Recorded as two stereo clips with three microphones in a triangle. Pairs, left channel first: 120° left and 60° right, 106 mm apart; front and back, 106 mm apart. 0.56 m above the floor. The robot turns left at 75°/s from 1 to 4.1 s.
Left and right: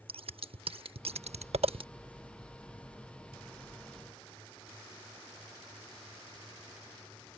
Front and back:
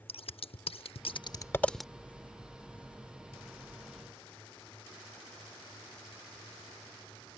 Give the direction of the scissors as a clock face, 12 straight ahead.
1 o'clock.